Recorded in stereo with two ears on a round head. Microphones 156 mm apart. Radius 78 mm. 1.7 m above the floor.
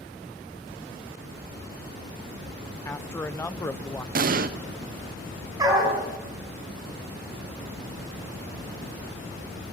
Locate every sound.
2.9 s a man speaking: 15° left (ahead or behind), 0.6 m
4.2 s an explosion: 55° right (ahead or behind), 1.0 m
5.6 s a dog barking: 20° right (ahead or behind), 6.5 m